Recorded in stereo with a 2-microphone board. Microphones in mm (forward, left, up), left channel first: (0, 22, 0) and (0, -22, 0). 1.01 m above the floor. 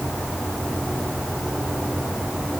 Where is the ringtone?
No ringtone in this recording.